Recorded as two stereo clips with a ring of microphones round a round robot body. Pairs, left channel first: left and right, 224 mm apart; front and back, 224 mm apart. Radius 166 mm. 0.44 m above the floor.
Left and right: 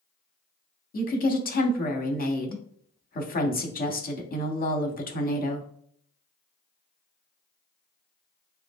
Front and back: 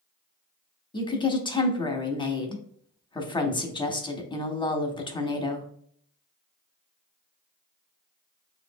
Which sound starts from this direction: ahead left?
A woman speaking, at 0.9 s.